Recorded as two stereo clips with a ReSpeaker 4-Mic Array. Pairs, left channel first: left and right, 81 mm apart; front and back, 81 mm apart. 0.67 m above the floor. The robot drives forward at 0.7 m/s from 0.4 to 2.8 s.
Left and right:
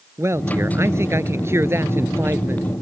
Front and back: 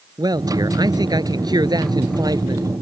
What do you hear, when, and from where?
0.2 s a man speaking: 145° right; by 2.7 s 150° right